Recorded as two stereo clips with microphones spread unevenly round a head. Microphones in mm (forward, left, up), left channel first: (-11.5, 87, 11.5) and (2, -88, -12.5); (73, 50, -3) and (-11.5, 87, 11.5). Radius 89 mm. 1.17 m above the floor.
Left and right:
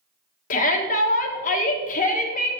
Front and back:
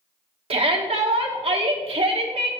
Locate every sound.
0.5 s a shout: 145° left, 1.3 m